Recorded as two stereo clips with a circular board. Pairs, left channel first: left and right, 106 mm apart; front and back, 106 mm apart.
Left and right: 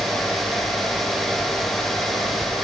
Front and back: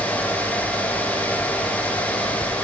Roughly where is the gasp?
No gasp in this recording.